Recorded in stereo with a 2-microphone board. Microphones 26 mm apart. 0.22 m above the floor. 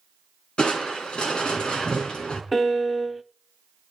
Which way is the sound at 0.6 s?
35° left (ahead or behind).